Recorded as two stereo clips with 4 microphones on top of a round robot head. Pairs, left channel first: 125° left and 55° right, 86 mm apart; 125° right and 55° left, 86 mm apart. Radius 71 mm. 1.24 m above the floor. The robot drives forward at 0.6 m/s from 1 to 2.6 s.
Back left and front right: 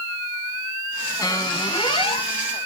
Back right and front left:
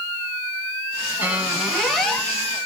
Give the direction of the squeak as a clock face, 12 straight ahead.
8 o'clock.